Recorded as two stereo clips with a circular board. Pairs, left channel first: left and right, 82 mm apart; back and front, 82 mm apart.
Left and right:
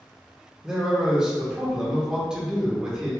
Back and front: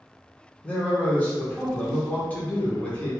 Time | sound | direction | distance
0.6 | a man speaking | 155° right | 0.8 m